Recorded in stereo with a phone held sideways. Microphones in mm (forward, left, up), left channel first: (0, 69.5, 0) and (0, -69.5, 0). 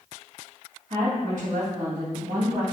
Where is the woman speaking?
60° right (ahead or behind), 1.4 m.